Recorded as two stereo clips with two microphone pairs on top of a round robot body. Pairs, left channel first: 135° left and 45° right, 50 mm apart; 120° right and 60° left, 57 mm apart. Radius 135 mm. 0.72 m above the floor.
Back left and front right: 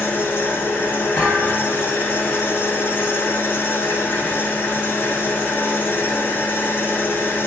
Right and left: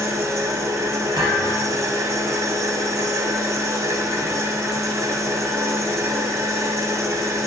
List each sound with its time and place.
0.0 s an engine running: 85° left, 1.0 m
1.2 s a thud: 40° left, 1.2 m